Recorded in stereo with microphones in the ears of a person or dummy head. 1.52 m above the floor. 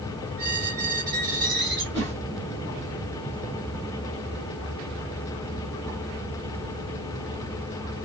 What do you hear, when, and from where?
0.4 s a squeak: 55° right (ahead or behind), 1.2 m
1.9 s a whoosh: 40° right (ahead or behind), 2.0 m